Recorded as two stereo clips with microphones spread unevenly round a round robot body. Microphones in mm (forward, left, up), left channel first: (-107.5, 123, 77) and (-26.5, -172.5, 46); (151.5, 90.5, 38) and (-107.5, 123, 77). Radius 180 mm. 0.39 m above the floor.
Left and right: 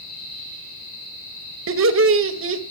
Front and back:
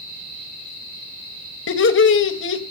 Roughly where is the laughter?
Ahead right.